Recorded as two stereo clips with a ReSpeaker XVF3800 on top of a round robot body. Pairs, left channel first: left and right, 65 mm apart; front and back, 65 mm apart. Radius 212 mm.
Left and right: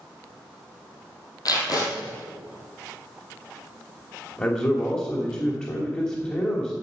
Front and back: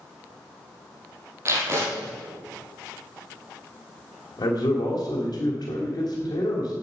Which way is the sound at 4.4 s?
25° left.